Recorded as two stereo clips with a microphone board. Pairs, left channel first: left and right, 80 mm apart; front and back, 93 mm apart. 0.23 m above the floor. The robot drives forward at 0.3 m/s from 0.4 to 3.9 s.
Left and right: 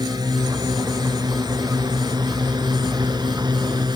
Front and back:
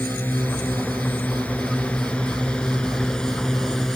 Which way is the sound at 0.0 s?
70° right.